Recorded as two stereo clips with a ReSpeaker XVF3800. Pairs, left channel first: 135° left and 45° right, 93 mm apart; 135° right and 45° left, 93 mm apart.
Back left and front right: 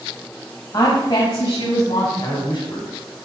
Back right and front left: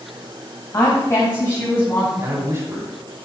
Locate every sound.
0.7 s a woman speaking: 175° left, 1.7 m; by 2.1 s 160° left, 2.5 m
2.2 s a man speaking: 105° left, 3 m